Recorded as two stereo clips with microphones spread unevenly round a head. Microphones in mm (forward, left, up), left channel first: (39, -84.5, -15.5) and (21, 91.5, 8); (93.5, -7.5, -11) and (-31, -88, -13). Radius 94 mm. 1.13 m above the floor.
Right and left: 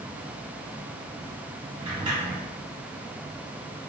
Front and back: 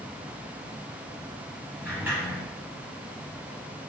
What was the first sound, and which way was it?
A sliding door, 140° left.